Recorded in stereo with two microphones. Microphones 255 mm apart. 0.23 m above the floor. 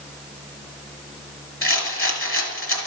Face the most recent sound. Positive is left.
turn(degrees=60)  # may be behind; listen again after turning